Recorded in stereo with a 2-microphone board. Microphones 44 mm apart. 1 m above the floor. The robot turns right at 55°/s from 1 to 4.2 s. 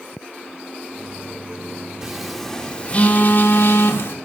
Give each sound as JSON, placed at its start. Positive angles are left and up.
{"t": 2.0, "sound": "a phone buzzing", "azimuth_deg": -20, "distance_m": 1.8}